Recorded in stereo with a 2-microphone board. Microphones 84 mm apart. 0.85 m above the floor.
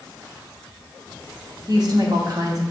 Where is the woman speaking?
50° right (ahead or behind), 1.5 m.